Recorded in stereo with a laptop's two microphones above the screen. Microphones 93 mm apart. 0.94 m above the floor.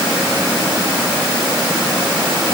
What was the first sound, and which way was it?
Only background noise.